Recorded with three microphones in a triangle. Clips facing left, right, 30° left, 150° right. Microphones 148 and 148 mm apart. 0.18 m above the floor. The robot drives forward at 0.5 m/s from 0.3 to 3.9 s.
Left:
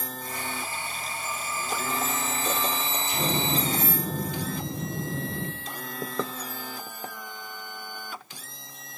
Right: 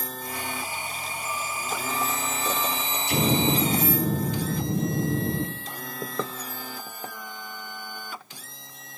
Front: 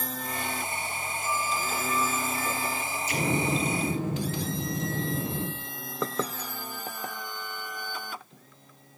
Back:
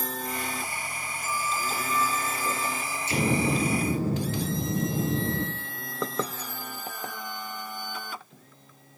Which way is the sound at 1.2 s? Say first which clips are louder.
Right 2 dB, even; 70° left.